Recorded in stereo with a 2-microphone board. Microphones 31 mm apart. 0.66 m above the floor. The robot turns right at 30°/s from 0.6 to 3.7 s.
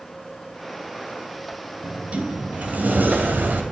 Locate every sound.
1.8 s a sliding door: 140° right, 2.5 m; by 3.6 s 90° right, 2.5 m